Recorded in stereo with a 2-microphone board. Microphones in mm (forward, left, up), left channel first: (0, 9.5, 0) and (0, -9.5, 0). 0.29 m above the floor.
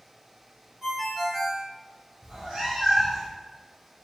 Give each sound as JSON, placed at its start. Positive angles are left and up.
{"t": 0.8, "sound": "a ringtone", "side_deg": -15, "distance_m": 1.2}
{"t": 2.2, "sound": "a cat meowing", "side_deg": -35, "distance_m": 1.8}